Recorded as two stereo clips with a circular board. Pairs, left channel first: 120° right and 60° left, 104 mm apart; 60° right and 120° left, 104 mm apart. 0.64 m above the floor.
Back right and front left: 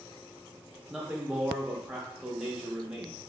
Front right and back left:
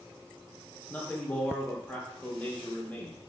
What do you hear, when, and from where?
0.9 s a man speaking: 10° right, 0.6 m